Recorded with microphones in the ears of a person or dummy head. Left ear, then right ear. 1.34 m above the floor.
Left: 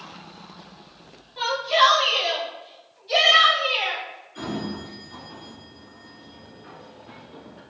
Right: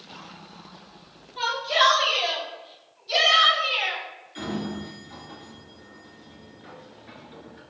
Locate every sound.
1.4 s a shout: centre (ahead or behind), 1.1 m; by 4.0 s 10° right (ahead or behind), 3.5 m
4.3 s a sliding door: 30° right (ahead or behind), 1.6 m